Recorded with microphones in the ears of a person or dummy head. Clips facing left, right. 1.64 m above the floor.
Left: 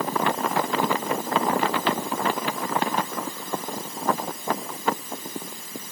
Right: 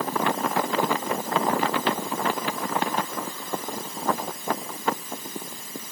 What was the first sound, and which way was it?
Only background noise.